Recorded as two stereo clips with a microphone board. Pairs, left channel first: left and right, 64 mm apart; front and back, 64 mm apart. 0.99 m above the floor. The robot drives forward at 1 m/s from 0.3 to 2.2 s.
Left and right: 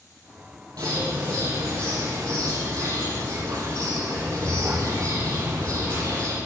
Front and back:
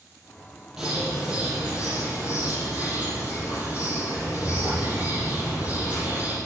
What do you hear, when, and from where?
0.8 s a bird: 100° right, 5.5 m; by 6.4 s 110° right, 6 m